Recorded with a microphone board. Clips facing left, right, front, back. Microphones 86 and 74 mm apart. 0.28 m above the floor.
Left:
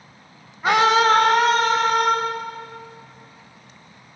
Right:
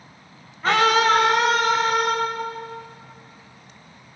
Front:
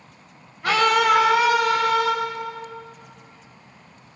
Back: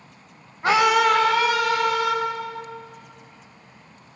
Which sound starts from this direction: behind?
A scream, at 0.6 s.